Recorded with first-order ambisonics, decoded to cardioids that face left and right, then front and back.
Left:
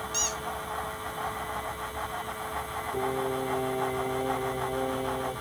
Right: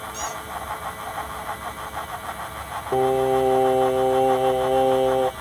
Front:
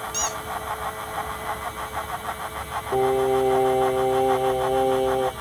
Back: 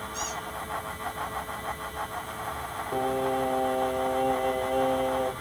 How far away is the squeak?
About 1.6 m.